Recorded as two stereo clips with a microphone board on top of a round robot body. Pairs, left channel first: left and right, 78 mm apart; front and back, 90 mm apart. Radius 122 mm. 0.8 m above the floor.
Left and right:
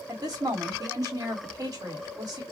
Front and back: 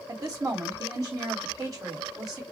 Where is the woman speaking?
135° right, 1.4 m.